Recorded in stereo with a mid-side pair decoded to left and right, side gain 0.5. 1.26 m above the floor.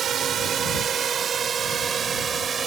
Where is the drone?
55° right; by 2.7 s 45° right.